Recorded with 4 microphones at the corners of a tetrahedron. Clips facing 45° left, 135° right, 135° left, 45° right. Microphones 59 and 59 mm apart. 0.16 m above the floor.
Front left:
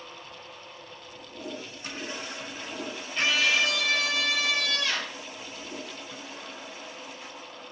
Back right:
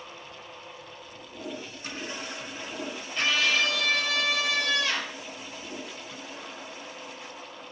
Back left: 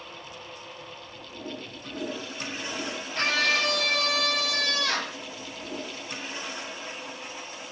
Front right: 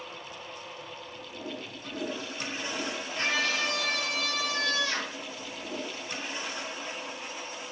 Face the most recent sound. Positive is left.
turn(degrees=140)